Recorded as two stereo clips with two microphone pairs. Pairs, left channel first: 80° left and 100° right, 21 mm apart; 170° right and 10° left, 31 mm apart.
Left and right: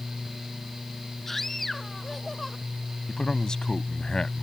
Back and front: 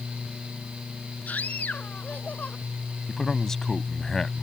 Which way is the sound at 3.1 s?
115° left.